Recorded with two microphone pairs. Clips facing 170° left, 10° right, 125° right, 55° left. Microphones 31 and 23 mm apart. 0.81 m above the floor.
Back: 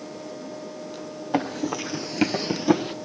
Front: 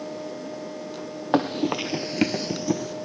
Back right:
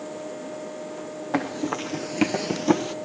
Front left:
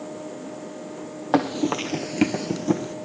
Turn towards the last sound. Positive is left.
turn(degrees=-160)